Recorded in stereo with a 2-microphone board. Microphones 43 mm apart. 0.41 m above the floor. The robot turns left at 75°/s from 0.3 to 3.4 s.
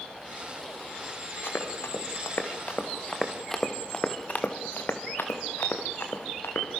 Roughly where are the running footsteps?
Left.